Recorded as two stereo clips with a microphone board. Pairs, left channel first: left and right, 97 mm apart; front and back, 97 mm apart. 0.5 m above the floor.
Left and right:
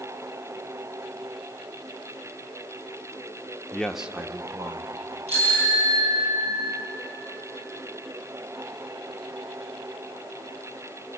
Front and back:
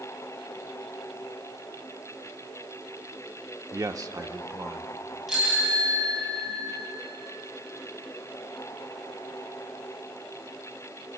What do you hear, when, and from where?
3.7 s a man speaking: 155° left, 0.8 m; by 4.9 s 125° right, 1.4 m
5.3 s a bicycle bell: 95° right, 7.5 m